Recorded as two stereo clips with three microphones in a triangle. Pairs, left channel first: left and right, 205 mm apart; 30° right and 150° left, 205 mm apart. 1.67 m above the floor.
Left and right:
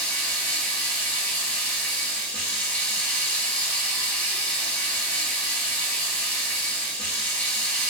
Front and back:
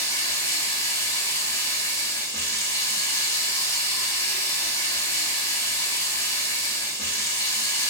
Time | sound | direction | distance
0.0 | running water | 20° left | 1.0 m